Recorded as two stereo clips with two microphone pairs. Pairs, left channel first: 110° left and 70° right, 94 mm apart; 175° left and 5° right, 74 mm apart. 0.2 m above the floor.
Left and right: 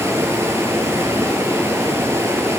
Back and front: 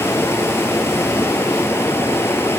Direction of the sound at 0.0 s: 130° right.